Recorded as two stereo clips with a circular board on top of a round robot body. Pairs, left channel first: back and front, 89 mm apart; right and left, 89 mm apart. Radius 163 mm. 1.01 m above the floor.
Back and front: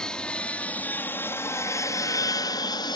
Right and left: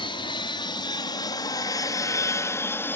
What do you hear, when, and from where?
0.0 s an aircraft: 100° right; by 3.0 s 155° right